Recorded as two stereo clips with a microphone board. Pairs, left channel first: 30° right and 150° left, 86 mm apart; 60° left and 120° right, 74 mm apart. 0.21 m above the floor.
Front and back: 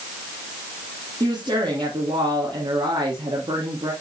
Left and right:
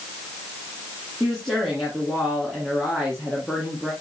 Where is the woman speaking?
150° left, 2.5 m.